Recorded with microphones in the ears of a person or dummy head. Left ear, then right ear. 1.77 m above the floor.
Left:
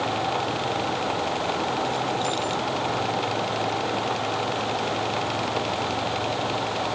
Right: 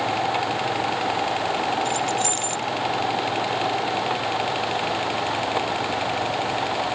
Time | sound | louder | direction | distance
1.9 | keys jangling | right 2 dB | 40° right (ahead or behind) | ?